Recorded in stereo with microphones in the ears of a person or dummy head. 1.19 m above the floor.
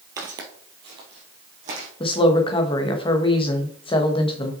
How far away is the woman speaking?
About 1.1 m.